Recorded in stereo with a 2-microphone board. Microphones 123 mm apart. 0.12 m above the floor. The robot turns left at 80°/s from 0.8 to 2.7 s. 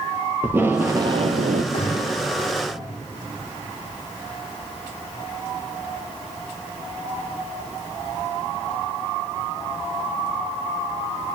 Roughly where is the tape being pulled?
Ahead.